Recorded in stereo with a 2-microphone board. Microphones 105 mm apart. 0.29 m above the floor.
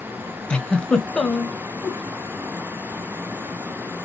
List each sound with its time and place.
0.5 s a giggle: 10° left (ahead or behind), 0.8 m
1.8 s a whoosh: 35° left (ahead or behind), 2.5 m